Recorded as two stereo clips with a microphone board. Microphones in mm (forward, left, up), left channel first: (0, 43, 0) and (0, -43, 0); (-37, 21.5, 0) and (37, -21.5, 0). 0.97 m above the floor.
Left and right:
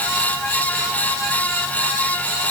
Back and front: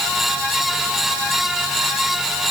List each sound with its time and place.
Only background noise.